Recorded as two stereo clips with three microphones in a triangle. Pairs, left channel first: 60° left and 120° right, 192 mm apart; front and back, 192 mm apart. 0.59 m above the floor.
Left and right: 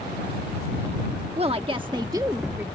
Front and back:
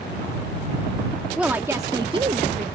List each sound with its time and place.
1.4 s a woman speaking: 100° right; by 2.6 s 165° left